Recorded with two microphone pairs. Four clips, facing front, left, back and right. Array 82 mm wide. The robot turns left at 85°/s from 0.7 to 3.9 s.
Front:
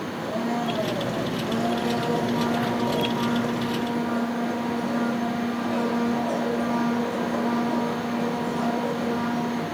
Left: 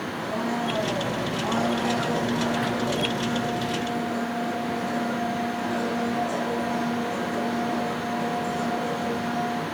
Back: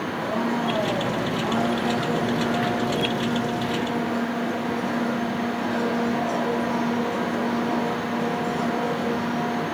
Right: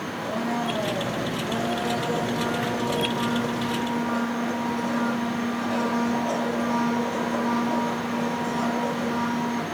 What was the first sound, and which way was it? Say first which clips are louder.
A blender: right 1 dB, back 2 dB; 155° right.